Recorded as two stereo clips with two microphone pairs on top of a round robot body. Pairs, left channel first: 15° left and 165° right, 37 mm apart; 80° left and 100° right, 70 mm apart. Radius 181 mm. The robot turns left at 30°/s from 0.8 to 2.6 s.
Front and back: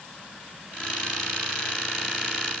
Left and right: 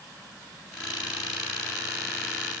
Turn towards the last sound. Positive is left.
No sound to turn to.